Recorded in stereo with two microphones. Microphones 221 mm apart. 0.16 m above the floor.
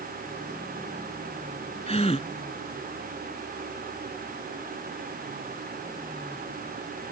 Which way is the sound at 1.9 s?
30° left (ahead or behind).